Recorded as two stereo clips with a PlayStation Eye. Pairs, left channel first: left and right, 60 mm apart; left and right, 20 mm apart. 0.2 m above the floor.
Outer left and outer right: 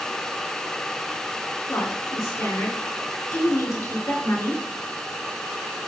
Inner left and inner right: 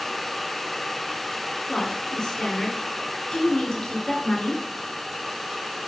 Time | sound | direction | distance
1.7 | a woman speaking | 60° left (ahead or behind) | 3.5 m